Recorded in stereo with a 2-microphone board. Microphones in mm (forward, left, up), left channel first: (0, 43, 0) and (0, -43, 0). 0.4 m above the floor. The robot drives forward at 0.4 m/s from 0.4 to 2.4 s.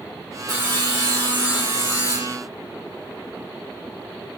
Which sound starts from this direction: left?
Sawing, at 0.5 s.